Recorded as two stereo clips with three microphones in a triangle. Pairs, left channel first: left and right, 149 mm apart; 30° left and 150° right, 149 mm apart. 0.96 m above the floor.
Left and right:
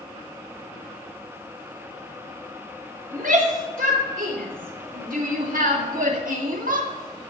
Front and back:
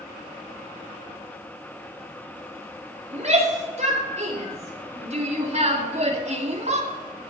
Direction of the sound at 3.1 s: 110° right.